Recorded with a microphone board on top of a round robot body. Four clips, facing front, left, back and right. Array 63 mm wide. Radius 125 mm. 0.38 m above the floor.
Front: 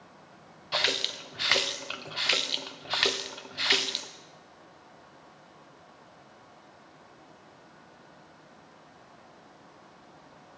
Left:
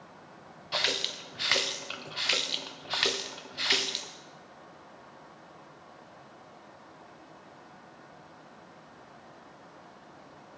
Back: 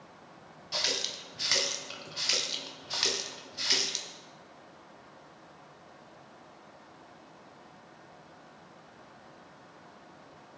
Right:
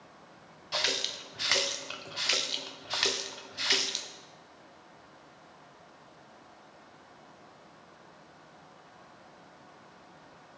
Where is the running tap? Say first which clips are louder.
Left 1 dB, front 6 dB; 15° left, 0.7 m.